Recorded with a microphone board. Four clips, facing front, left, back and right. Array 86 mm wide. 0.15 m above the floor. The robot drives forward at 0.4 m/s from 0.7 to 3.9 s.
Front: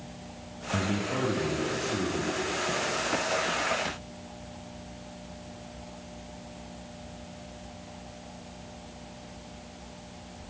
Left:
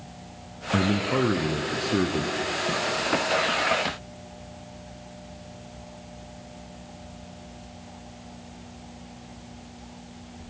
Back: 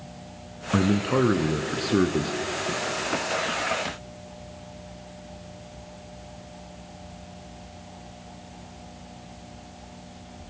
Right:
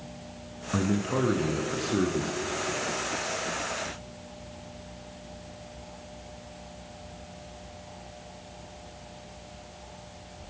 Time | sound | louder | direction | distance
0.7 | a man speaking | left 3 dB, back 8 dB | 160° left | 1.6 m